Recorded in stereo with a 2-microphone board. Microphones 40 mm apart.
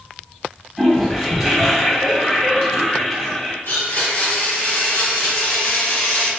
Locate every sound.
0.8 s a toilet flushing: 5° left (ahead or behind), 1.6 m
3.6 s a blender: 65° left (ahead or behind), 2.0 m